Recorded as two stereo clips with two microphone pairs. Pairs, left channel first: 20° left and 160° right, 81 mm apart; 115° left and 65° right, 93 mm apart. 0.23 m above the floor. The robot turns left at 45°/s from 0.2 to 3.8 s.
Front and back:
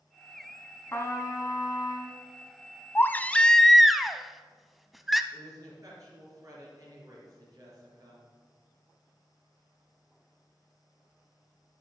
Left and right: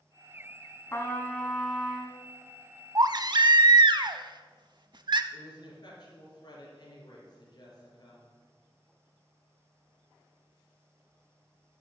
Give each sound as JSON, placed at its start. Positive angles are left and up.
{"t": 0.9, "sound": "a trumpet", "azimuth_deg": 65, "distance_m": 1.2}
{"t": 3.0, "sound": "a baby crying", "azimuth_deg": -30, "distance_m": 0.5}
{"t": 5.3, "sound": "a woman speaking", "azimuth_deg": 155, "distance_m": 4.0}